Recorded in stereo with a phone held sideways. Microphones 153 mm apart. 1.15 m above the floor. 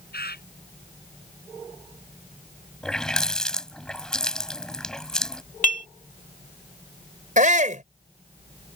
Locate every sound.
0.1 s a bird: 75° left (ahead or behind)
2.8 s a running tap: 5° left (ahead or behind)
5.6 s dishes clattering: 55° left (ahead or behind)
7.4 s a shout: 50° right (ahead or behind)